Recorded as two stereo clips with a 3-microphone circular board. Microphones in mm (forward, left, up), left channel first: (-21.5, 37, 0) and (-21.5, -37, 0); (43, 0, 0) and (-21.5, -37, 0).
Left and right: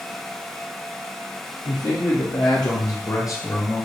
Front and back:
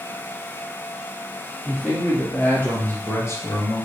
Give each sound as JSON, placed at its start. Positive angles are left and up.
{"t": 1.6, "sound": "a man speaking", "azimuth_deg": 105, "distance_m": 3.5}